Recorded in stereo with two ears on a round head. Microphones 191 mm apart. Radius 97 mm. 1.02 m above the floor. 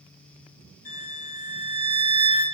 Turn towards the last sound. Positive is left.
turn(degrees=40)  # may be behind; listen again after turning